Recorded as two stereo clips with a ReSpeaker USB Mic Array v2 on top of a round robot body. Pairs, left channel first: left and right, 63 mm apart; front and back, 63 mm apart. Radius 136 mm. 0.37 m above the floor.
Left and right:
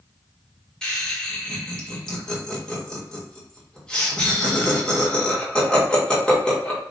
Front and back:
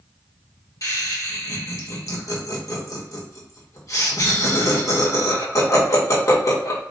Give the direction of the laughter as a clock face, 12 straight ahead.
11 o'clock.